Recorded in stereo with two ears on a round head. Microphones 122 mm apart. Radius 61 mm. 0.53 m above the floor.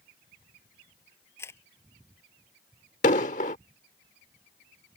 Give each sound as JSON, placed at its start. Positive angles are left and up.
{"t": 1.4, "sound": "a camera shutter", "side_deg": 20}
{"t": 3.0, "sound": "an explosion", "side_deg": 60}